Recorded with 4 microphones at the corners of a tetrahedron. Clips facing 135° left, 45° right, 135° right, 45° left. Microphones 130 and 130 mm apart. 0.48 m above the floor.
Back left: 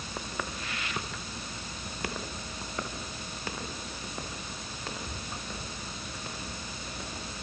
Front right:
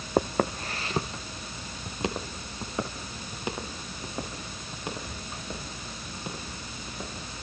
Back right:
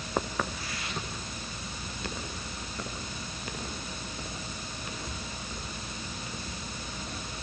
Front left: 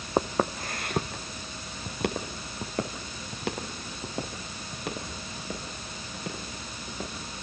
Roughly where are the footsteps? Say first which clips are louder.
Front right 13 dB, front left 6 dB; ahead.